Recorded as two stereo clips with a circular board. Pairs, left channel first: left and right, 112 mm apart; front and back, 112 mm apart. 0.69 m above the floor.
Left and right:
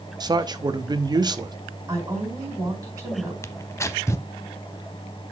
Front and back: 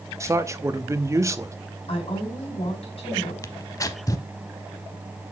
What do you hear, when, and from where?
0.2 s a man speaking: 125° right, 0.7 m
1.9 s a woman speaking: 30° right, 4.5 m
3.4 s tearing paper: 40° left, 0.6 m